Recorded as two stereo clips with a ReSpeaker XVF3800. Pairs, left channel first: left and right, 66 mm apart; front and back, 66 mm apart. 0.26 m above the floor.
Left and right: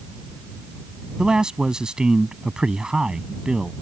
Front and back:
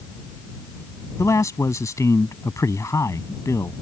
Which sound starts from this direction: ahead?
A man speaking, at 1.2 s.